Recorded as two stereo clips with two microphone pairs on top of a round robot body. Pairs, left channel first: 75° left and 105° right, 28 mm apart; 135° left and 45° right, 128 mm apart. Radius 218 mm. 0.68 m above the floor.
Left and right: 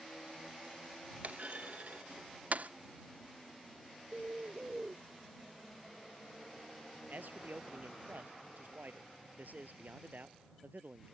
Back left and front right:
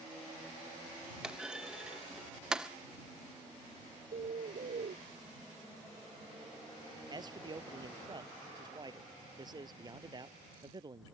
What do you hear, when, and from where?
1.2 s a clunk: 130° right
4.1 s a bird: 65° right
7.1 s a man speaking: 100° right